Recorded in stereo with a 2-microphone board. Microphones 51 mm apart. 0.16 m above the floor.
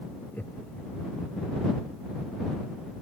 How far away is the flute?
No flute in this recording.